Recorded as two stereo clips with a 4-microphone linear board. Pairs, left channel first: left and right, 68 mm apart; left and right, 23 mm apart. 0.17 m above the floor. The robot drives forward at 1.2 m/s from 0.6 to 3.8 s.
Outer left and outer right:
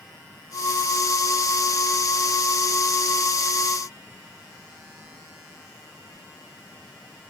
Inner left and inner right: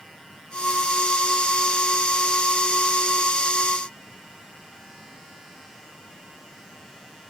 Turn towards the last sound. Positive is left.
No sound to turn to.